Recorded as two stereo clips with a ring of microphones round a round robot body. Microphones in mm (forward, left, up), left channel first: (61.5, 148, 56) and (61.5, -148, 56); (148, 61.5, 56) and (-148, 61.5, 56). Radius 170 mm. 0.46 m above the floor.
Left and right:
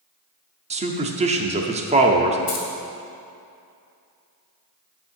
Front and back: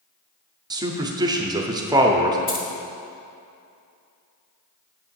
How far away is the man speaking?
About 0.7 m.